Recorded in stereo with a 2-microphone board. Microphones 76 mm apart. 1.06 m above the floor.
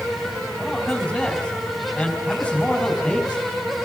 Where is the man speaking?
15° left (ahead or behind), 5 m.